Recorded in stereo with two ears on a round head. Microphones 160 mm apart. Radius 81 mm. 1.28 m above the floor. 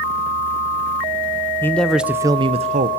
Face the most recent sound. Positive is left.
turn(degrees=-45)  # may be behind; listen again after turning